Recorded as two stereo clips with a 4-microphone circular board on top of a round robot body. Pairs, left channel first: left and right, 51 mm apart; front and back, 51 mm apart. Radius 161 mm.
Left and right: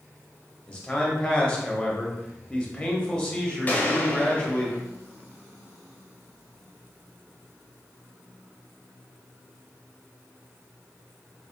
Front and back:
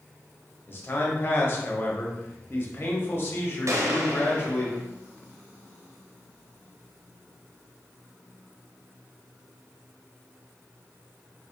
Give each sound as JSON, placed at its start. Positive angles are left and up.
{"t": 0.7, "sound": "a man speaking", "azimuth_deg": 35, "distance_m": 1.4}
{"t": 3.7, "sound": "a gunshot", "azimuth_deg": 150, "distance_m": 0.8}